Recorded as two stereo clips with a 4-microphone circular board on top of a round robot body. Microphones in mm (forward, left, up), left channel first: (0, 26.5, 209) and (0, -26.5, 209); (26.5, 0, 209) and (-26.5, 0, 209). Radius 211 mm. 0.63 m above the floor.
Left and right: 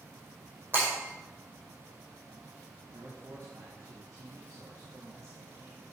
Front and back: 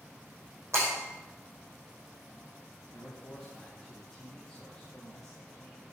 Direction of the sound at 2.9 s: 80° right.